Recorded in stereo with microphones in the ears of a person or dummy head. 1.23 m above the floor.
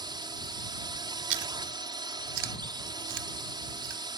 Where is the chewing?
65° right (ahead or behind).